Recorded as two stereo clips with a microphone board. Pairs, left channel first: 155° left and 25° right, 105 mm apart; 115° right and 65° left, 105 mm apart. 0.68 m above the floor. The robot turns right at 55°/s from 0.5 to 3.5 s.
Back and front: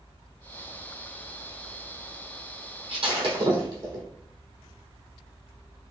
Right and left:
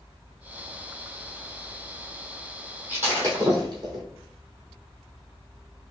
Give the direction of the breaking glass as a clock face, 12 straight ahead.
12 o'clock.